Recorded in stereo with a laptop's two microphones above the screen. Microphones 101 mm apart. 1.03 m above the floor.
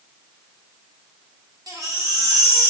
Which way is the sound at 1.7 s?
40° right (ahead or behind).